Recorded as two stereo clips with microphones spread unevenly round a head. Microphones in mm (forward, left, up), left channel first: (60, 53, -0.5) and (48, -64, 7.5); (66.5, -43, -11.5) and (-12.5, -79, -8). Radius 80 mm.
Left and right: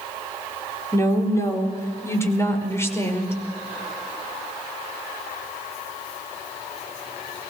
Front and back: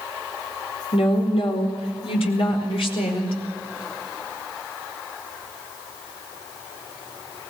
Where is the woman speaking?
20° left, 4.5 m; by 3.4 s 15° left, 6 m.